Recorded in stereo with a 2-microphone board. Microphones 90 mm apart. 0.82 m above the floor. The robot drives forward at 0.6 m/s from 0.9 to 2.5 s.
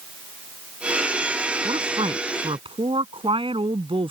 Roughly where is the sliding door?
No sliding door in this recording.